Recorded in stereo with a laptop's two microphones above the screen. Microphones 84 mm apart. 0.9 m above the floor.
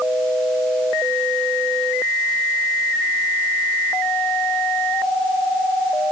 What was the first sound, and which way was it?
Only background noise.